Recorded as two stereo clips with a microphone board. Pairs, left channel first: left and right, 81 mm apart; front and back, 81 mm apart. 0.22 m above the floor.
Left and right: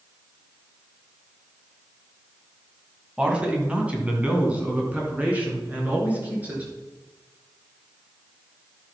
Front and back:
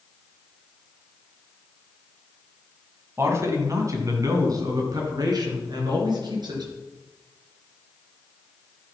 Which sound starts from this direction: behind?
A man speaking, at 3.2 s.